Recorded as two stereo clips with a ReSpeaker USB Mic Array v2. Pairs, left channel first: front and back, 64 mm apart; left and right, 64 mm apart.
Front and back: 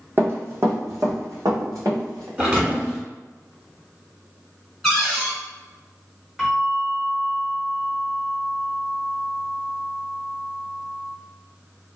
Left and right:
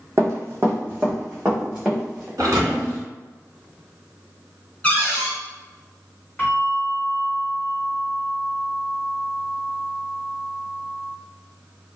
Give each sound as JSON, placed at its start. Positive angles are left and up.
{"t": 0.2, "sound": "running footsteps", "azimuth_deg": -130, "distance_m": 0.9}
{"t": 2.4, "sound": "a thud", "azimuth_deg": -115, "distance_m": 1.2}
{"t": 4.8, "sound": "a cupboard door", "azimuth_deg": 80, "distance_m": 1.0}
{"t": 6.4, "sound": "a bell", "azimuth_deg": 105, "distance_m": 1.4}